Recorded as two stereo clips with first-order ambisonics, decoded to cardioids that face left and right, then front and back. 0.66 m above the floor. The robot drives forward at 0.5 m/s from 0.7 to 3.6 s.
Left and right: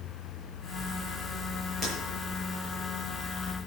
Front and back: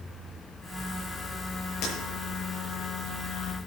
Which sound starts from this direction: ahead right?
Breaking glass, at 1.8 s.